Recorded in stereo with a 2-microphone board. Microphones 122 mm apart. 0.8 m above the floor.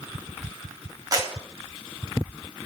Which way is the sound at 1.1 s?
30° right (ahead or behind).